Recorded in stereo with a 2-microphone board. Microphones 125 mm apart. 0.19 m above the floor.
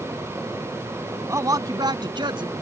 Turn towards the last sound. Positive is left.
turn(degrees=-40)  # may be behind; listen again after turning